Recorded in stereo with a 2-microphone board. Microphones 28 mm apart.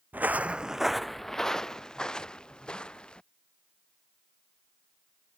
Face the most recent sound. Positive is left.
turn(degrees=30)  # may be behind; listen again after turning